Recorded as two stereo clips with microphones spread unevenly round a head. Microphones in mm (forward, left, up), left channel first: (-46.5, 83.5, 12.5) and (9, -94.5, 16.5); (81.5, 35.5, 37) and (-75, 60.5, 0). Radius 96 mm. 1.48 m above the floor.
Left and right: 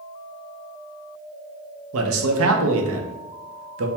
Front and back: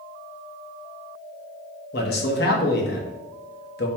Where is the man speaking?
50° right, 0.7 m.